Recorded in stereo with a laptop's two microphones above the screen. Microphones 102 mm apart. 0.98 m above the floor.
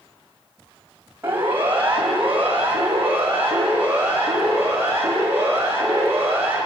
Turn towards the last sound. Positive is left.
turn(degrees=-20)  # may be behind; listen again after turning